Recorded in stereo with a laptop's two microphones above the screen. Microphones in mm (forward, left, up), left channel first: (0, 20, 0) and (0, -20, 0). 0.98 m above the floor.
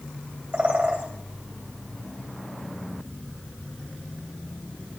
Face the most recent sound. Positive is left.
turn(degrees=-45)  # may be behind; listen again after turning